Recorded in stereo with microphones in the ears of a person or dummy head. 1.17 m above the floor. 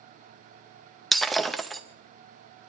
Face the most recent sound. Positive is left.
turn(degrees=0)  # may be behind; listen again after turning